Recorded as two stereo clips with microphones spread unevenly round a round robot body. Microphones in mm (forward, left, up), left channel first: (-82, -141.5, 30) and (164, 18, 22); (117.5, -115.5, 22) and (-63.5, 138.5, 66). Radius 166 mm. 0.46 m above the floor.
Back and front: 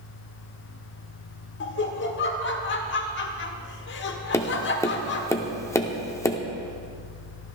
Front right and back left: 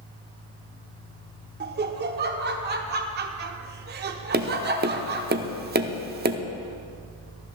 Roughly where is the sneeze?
No sneeze in this recording.